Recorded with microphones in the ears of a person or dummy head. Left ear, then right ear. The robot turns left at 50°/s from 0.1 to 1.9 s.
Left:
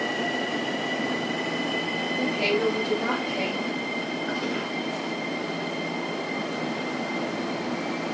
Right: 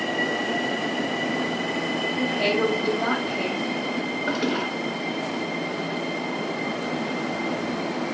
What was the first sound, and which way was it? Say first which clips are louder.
A woman speaking: right 1 dB; 5° left (ahead or behind).